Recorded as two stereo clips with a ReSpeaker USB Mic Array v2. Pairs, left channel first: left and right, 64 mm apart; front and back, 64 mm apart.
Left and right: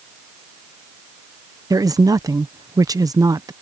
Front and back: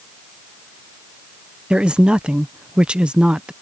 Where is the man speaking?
105° right.